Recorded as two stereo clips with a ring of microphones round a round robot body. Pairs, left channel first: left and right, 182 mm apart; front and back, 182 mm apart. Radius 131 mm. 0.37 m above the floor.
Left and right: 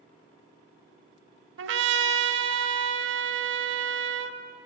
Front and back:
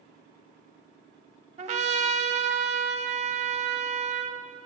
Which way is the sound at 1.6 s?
115° right.